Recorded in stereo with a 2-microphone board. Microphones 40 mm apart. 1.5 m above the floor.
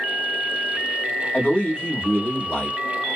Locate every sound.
1.3 s a man speaking: 25° left (ahead or behind), 1.4 m; by 2.8 s 60° left (ahead or behind), 1.2 m